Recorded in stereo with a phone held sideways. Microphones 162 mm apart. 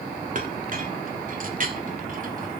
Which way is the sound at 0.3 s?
55° right (ahead or behind).